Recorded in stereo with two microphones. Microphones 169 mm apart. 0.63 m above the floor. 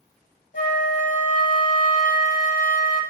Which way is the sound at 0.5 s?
55° left (ahead or behind).